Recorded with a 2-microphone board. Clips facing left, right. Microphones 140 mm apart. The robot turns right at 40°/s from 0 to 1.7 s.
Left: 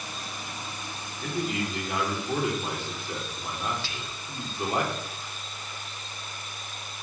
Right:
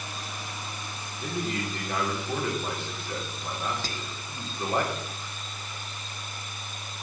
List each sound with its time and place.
1.2 s a man speaking: 5° right (ahead or behind), 3.5 m; by 4.8 s 15° left (ahead or behind), 3.5 m
3.8 s whispering: 45° right (ahead or behind), 0.5 m